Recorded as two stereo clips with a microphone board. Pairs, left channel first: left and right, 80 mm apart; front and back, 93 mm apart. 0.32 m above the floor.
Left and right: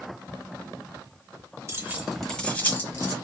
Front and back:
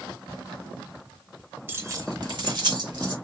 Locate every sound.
1.7 s keys jangling: 120° right, 0.8 m; by 3.1 s 145° left, 1.7 m